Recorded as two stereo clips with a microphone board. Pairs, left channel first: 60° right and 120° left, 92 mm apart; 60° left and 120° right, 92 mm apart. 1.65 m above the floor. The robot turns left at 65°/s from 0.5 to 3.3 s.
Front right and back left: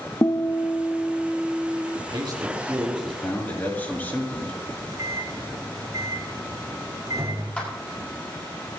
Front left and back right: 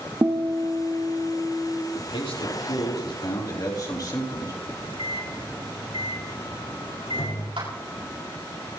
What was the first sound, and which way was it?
A guitar, 90° right.